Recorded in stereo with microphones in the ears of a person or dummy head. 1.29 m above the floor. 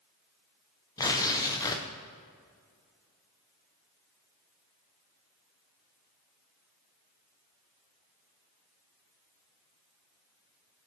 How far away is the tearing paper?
About 0.8 m.